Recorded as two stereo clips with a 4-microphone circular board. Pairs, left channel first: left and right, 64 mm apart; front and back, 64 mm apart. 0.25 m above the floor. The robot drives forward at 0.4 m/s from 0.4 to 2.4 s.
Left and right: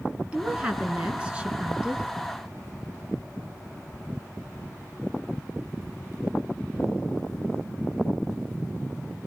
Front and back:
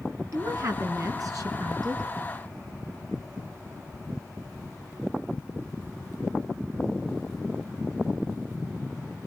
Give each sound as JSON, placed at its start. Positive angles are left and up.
{"t": 0.3, "sound": "a woman speaking", "azimuth_deg": -160, "distance_m": 3.5}